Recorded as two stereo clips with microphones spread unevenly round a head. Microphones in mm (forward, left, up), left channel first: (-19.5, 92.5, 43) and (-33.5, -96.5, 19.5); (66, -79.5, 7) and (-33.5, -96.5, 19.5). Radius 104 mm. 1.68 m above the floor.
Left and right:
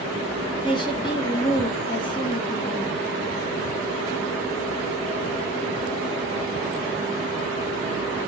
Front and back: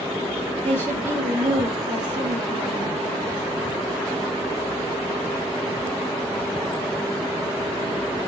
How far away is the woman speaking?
About 1.2 m.